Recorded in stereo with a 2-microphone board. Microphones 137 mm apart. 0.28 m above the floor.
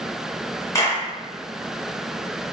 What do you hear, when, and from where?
0.8 s a clap: 25° left (ahead or behind), 2.5 m